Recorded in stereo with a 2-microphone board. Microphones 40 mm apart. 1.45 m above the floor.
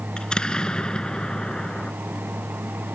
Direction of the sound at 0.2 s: 20° left (ahead or behind).